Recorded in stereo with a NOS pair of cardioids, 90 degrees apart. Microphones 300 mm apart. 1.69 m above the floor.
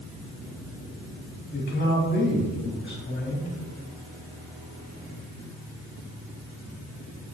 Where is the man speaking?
40° left, 3 m.